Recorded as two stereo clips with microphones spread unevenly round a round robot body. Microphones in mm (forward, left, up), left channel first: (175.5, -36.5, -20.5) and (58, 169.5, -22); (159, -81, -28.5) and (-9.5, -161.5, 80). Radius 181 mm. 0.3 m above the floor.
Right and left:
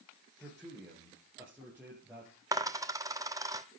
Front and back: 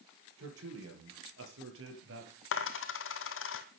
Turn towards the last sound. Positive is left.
turn(degrees=45)